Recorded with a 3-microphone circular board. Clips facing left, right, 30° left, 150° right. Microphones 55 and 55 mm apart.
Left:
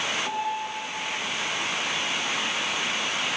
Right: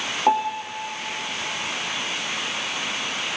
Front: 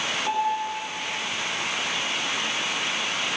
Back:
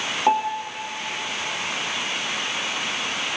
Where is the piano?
105° right, 2.5 m.